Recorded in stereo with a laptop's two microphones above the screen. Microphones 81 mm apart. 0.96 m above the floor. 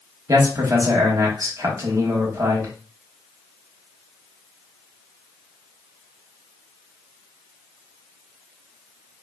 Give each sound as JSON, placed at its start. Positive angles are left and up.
{"t": 0.3, "sound": "a man speaking", "side_deg": -40, "distance_m": 1.6}